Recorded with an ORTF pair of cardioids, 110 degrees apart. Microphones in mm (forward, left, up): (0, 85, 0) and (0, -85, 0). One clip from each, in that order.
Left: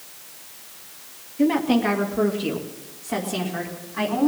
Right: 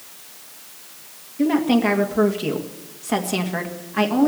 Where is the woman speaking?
5° right, 1.5 m; by 4.3 s 55° right, 3 m.